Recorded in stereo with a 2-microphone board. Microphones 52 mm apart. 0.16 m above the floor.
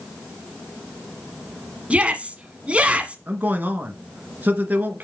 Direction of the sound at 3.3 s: 30° right (ahead or behind).